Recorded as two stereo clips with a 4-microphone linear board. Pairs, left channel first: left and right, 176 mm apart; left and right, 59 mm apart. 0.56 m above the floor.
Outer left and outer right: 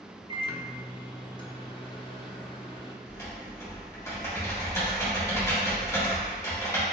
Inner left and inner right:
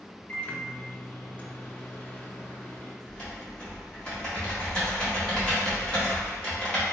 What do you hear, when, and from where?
0.3 s a microwave: 30° left (ahead or behind), 0.5 m
3.0 s typing on a keyboard: 15° left (ahead or behind), 1.5 m